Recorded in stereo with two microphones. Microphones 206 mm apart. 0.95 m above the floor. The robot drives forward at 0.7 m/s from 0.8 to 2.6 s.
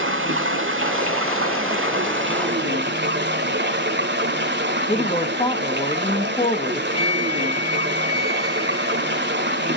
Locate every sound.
0.0 s running water: 70° right (ahead or behind), 1.4 m; by 9.8 s 55° right (ahead or behind), 1.6 m
4.9 s a woman speaking: 30° left (ahead or behind), 1.2 m
6.9 s a flute: 30° left (ahead or behind), 1.5 m